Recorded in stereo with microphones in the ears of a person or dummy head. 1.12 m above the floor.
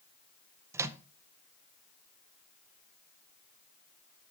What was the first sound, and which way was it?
A microwave, 15° right (ahead or behind).